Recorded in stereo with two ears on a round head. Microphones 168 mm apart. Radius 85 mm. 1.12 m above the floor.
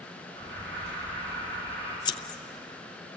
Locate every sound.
0.4 s an alarm: 65° right (ahead or behind), 9 m
2.0 s scissors: 25° left (ahead or behind), 0.5 m